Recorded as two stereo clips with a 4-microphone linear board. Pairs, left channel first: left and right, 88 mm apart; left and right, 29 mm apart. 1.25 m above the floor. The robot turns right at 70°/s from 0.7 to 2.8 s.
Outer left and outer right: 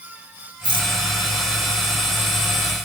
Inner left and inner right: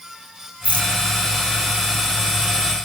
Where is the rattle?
65° right (ahead or behind), 2 m; by 0.9 s 75° right (ahead or behind), 2 m.